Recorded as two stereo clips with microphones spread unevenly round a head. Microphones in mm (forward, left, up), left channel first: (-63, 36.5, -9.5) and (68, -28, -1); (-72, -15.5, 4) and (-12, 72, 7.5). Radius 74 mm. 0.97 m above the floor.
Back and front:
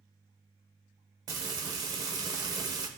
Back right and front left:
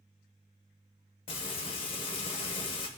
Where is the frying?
85° right, 0.9 m.